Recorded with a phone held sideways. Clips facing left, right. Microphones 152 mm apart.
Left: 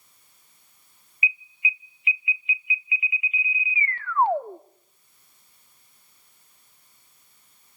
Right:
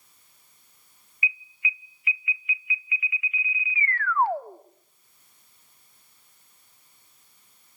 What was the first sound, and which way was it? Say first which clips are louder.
An alarm: left 2 dB; 20° left (ahead or behind).